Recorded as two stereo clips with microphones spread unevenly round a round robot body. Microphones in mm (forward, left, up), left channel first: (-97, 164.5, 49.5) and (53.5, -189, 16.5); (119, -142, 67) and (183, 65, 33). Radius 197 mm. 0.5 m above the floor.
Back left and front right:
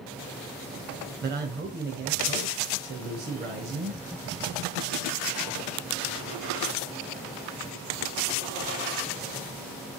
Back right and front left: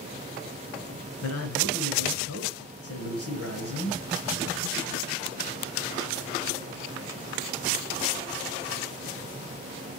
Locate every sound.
1.2 s a man speaking: 130° right, 2.5 m